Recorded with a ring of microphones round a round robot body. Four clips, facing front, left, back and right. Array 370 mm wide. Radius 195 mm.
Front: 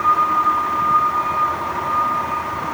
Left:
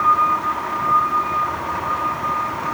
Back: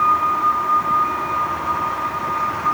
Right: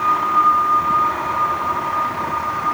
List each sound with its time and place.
Only background noise.